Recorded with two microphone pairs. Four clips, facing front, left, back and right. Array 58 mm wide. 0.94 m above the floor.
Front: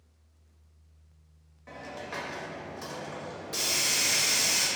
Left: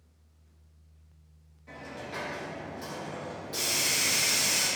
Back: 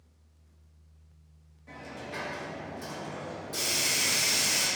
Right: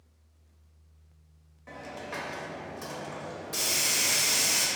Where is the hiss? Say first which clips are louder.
Right 1 dB, front 1 dB; 45° right, 1.0 m.